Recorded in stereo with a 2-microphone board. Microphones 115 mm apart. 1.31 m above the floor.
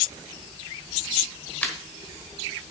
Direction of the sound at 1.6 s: 15° left (ahead or behind).